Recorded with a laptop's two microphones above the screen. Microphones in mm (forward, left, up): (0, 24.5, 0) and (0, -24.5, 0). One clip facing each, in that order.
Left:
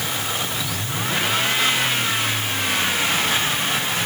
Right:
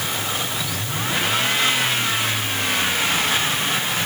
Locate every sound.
Only background noise.